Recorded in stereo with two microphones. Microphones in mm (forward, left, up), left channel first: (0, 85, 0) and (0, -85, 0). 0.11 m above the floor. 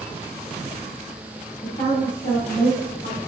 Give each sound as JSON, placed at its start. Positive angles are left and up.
{"t": 1.6, "sound": "a woman speaking", "side_deg": 55, "distance_m": 3.5}